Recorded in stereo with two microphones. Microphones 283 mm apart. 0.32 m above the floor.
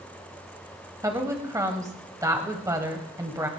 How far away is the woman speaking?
About 1.6 m.